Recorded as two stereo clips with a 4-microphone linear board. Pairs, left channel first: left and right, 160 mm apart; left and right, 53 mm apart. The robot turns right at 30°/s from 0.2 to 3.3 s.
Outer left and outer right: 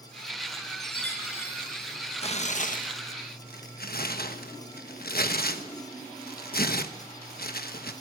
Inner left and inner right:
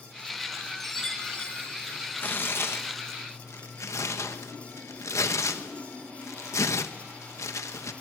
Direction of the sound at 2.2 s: 40° left (ahead or behind).